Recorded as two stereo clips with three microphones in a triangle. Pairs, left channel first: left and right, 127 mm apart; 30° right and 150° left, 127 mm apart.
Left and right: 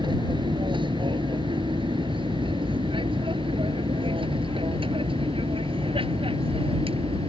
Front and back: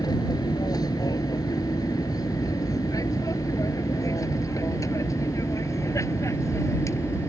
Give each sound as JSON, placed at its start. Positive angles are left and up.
{"t": 0.0, "sound": "an aircraft", "azimuth_deg": -70}